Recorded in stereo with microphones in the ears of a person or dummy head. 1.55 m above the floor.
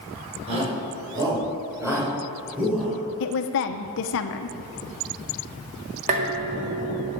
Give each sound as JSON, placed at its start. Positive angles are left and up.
{"t": 0.5, "sound": "a shout", "side_deg": -30, "distance_m": 5.0}
{"t": 3.2, "sound": "a woman speaking", "side_deg": 70, "distance_m": 1.0}
{"t": 6.1, "sound": "dishes clattering", "side_deg": -40, "distance_m": 1.9}